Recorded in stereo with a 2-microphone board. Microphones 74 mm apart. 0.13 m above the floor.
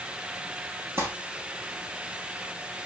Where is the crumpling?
35° right (ahead or behind), 3.5 m.